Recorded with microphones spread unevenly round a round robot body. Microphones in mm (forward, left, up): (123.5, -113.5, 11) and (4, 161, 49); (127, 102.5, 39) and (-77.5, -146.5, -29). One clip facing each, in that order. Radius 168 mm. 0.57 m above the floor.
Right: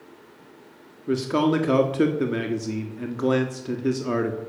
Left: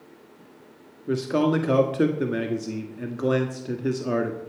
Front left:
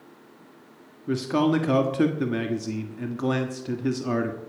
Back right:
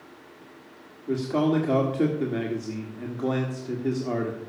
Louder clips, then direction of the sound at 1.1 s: Right 1 dB, front left 1 dB; straight ahead.